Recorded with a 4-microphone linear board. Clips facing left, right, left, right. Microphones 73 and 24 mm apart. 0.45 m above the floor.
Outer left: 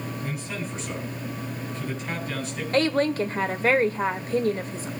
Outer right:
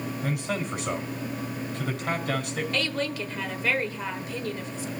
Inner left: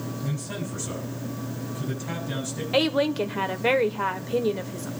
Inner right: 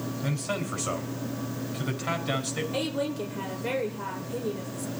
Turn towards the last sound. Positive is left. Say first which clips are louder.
# outer left 10 dB, inner left 10 dB
turn(degrees=40)  # may be behind; listen again after turning